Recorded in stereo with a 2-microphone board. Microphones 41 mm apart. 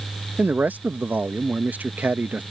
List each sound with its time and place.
0.4 s a man speaking: 40° right (ahead or behind)